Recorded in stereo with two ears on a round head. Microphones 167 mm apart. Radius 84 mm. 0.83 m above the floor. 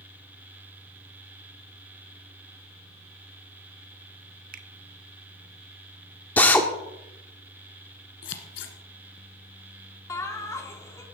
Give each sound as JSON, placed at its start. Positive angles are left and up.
{"t": 4.5, "sound": "a finger snap", "side_deg": -50, "distance_m": 1.0}
{"t": 6.4, "sound": "a drill", "side_deg": 10, "distance_m": 1.3}
{"t": 8.2, "sound": "scissors", "side_deg": 70, "distance_m": 1.8}
{"t": 10.1, "sound": "laughter", "side_deg": 15, "distance_m": 2.5}